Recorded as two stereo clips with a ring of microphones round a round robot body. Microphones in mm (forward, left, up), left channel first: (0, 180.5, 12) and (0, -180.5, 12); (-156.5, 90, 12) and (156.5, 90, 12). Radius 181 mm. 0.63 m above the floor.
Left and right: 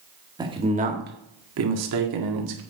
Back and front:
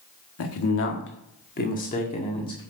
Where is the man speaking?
165° right, 1.7 m; by 2.6 s 105° right, 2 m.